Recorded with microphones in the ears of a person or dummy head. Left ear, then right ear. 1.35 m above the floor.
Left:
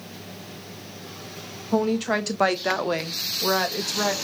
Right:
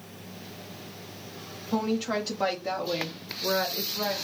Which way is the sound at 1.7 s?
Centre (ahead or behind).